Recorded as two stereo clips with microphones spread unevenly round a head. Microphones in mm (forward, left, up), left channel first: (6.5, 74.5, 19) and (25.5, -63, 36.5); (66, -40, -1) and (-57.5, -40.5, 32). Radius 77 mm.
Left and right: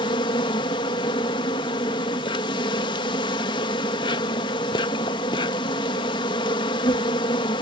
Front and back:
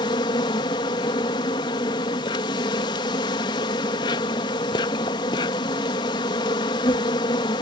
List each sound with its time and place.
0.0 s an insect: 60° left